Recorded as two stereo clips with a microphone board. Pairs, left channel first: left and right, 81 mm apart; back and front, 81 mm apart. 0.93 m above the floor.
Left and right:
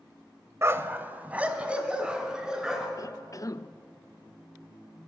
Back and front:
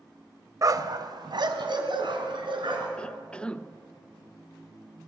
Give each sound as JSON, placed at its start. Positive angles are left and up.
{"t": 0.6, "sound": "a dog barking", "azimuth_deg": -40, "distance_m": 1.1}
{"t": 3.0, "sound": "a cough", "azimuth_deg": 110, "distance_m": 0.8}